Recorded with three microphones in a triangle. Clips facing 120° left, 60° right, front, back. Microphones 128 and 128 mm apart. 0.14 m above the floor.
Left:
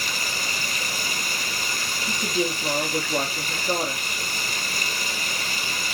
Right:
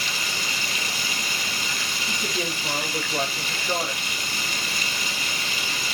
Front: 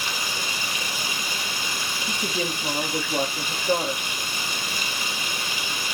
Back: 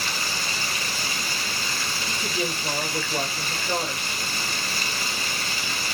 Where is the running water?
70° left, 3 m.